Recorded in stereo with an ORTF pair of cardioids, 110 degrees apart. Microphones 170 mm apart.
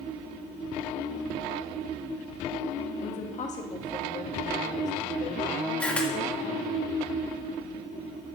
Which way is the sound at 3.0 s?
45° left.